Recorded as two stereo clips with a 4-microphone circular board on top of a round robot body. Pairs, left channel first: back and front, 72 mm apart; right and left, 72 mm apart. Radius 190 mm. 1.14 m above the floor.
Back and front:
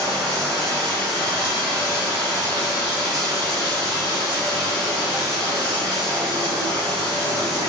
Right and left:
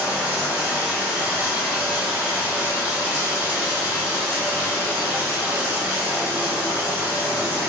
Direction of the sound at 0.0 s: 20° left.